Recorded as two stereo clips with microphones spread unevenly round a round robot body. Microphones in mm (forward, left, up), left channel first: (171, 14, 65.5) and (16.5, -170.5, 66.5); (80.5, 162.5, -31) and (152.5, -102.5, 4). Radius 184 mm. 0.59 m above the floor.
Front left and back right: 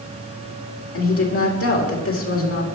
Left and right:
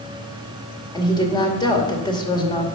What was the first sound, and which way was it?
A woman speaking, 35° left.